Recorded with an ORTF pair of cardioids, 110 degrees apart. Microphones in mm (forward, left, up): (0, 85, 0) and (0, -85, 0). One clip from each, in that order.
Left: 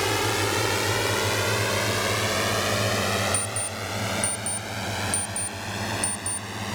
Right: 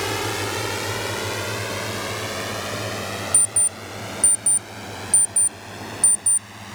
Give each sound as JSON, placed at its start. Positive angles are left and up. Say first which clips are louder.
{"t": 0.0, "sound": "a drone", "louder": "left 1 dB", "azimuth_deg": 5}
{"t": 3.3, "sound": "an alarm clock", "louder": "right 4 dB", "azimuth_deg": -20}